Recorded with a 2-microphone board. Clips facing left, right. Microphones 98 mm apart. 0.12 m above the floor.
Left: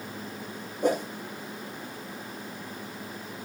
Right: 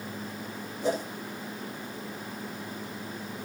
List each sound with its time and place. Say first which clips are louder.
0.8 s a whoosh: left 3 dB; 50° left (ahead or behind), 6.5 m